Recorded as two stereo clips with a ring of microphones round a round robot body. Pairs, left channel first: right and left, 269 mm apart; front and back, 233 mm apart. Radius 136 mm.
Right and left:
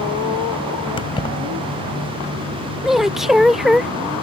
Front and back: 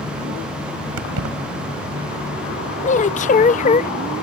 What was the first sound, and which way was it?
Keys jangling, 160° right.